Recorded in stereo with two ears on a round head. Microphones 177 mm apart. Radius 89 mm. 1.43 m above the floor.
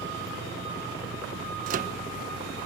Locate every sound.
1.7 s a microwave: 45° right (ahead or behind), 0.9 m